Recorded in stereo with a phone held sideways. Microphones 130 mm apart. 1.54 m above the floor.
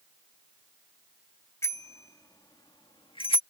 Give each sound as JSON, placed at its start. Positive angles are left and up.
{"t": 1.6, "sound": "a bicycle bell", "side_deg": 20}